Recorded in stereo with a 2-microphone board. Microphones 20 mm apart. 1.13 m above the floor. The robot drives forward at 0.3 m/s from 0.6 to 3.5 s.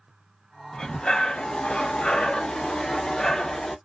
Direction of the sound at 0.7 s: 60° left (ahead or behind).